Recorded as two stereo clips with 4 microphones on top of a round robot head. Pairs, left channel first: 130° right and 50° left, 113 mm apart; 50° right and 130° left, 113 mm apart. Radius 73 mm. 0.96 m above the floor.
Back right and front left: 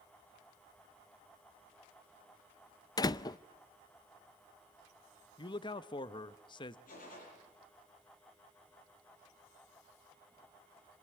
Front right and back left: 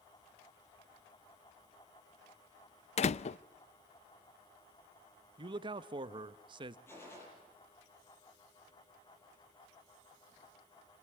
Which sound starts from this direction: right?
A door slam, at 3.0 s.